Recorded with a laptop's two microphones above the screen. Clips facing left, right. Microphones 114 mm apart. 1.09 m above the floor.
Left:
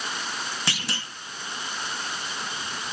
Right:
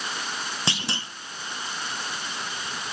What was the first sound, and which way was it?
A clunk, 25° right (ahead or behind).